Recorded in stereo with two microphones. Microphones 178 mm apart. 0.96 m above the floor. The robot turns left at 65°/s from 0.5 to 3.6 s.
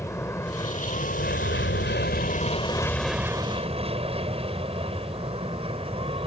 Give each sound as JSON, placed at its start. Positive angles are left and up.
{"t": 0.0, "sound": "an aircraft", "side_deg": 15}